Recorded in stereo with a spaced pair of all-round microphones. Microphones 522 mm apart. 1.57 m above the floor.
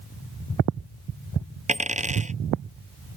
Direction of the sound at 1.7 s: 15° right (ahead or behind).